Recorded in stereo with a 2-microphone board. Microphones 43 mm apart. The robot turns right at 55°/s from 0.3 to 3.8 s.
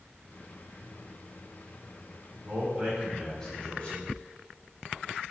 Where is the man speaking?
45° right, 4.5 m; by 4.1 s 30° left, 4.5 m.